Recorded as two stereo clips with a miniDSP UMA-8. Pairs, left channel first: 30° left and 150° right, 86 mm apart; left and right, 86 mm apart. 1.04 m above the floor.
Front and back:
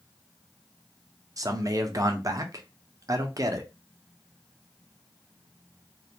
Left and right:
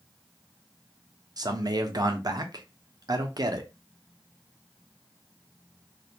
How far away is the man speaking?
About 0.5 m.